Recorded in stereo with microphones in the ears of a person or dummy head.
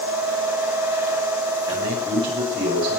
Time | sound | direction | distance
1.7 | a man speaking | 25° right (ahead or behind) | 7 m